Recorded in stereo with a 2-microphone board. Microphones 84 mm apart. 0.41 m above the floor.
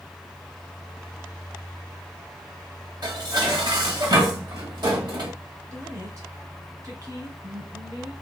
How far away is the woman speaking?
About 2 m.